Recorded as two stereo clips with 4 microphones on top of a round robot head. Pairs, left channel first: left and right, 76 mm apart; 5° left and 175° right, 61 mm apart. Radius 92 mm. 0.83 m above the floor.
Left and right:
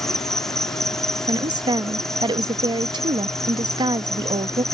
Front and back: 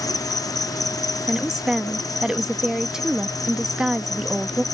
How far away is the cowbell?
I don't hear a cowbell.